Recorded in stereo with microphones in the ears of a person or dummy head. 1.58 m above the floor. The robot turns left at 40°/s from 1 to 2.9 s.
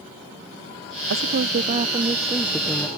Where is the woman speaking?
125° right; by 2.9 s 165° left.